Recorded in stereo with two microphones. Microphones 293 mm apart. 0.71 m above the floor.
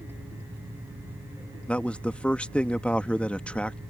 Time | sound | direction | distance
1.7 | a man speaking | 5° left (ahead or behind) | ?